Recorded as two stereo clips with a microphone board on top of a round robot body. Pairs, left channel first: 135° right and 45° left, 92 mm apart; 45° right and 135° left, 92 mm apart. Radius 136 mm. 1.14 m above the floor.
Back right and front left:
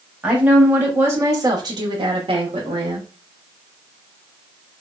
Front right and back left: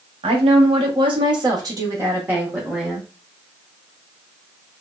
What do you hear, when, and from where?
0.2 s a woman speaking: 125° left, 1.2 m; by 3.1 s 45° left, 1.1 m